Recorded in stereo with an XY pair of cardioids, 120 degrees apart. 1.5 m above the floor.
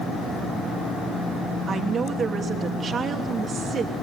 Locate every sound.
1.7 s a woman speaking: 40° right, 2.5 m